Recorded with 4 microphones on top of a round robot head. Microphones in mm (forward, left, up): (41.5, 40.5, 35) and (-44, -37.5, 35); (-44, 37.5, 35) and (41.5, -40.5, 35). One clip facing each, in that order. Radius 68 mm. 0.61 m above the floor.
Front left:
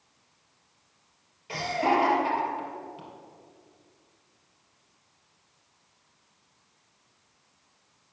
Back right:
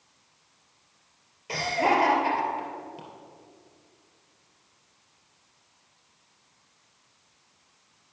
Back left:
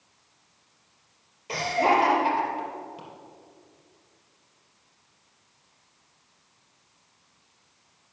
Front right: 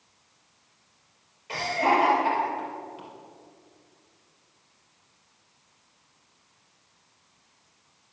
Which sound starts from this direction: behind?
Laughter, at 1.5 s.